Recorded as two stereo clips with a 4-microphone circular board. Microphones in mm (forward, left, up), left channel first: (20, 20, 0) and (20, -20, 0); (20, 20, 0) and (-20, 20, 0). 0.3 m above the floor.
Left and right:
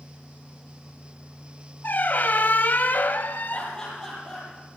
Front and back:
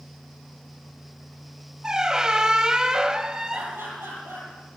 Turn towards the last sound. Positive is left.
turn(degrees=165)